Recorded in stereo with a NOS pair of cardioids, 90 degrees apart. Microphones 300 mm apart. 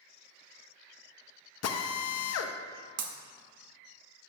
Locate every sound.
1.6 s a drill: 55° left, 0.9 m
3.0 s breaking glass: 60° right, 1.1 m